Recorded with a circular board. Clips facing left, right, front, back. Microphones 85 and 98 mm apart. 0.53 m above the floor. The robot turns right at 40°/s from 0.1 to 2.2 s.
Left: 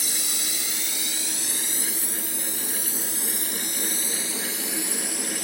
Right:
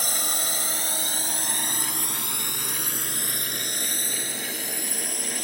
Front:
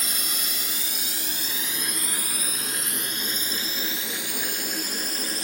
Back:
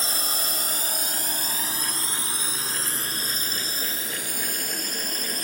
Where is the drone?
125° right; by 5.5 s 135° right.